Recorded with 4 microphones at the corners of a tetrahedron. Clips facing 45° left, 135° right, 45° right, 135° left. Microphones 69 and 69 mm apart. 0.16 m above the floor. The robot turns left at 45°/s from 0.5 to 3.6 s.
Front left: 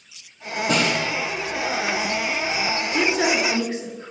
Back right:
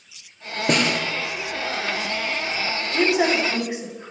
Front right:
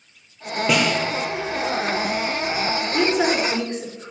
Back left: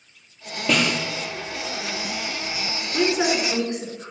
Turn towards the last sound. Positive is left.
turn(degrees=-175)